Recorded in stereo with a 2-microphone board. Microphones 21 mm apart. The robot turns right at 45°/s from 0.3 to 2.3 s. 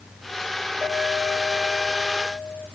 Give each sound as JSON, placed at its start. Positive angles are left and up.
{"t": 0.8, "sound": "a clink", "azimuth_deg": -80, "distance_m": 8.0}